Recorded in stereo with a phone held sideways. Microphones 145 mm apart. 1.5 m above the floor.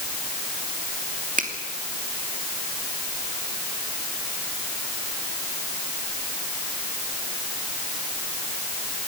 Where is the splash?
I don't hear a splash.